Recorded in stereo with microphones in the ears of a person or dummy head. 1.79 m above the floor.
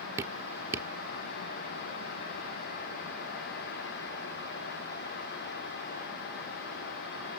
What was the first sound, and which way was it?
Dripping, 20° right (ahead or behind).